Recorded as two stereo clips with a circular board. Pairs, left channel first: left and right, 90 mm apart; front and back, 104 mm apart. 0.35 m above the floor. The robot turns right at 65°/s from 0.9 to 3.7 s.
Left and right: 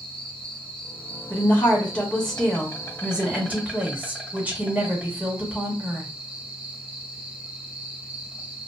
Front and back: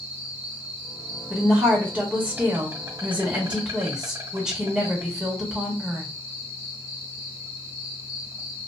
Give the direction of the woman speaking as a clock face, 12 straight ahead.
9 o'clock.